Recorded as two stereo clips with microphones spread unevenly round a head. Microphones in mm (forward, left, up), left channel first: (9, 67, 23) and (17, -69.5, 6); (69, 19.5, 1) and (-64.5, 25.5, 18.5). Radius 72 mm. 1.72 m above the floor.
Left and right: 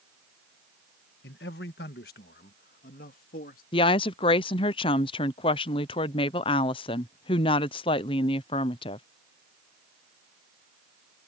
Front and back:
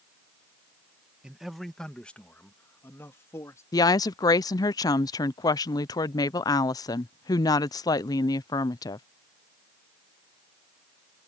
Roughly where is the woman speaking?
Ahead left.